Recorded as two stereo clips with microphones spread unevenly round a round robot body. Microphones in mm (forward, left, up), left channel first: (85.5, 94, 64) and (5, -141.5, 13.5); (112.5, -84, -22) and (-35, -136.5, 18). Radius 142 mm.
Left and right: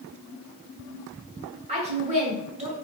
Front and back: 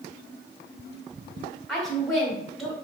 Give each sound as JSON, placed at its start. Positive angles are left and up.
{"t": 1.7, "sound": "a woman speaking", "azimuth_deg": -60, "distance_m": 2.0}